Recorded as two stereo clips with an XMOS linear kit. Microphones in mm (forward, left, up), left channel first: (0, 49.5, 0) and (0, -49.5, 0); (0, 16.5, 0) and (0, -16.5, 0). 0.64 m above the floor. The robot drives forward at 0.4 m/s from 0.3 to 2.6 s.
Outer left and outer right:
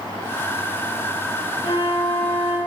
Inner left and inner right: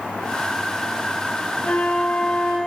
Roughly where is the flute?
Left.